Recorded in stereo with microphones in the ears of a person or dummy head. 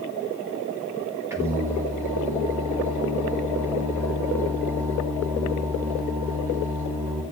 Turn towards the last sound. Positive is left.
turn(degrees=-15)  # may be behind; listen again after turning